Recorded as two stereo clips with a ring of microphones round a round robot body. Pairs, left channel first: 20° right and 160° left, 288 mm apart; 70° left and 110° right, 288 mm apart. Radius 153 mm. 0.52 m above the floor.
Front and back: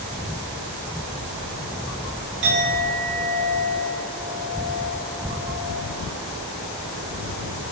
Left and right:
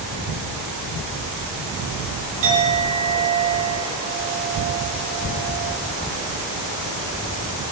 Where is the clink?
155° right, 2 m.